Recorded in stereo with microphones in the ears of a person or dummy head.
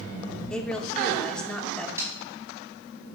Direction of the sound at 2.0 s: 15° right (ahead or behind).